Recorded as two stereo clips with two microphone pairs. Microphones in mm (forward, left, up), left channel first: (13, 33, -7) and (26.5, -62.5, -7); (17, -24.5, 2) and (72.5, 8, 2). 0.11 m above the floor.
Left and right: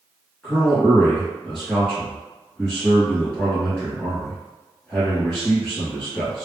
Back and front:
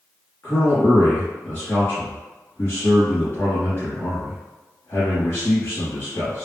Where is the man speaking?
175° left, 1.8 m.